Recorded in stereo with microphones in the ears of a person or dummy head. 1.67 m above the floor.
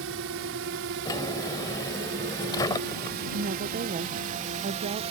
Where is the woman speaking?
35° right (ahead or behind).